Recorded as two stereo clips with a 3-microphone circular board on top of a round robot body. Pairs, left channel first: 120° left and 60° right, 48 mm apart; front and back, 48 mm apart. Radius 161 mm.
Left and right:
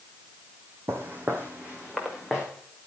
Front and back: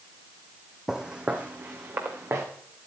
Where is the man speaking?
I don't hear a man speaking.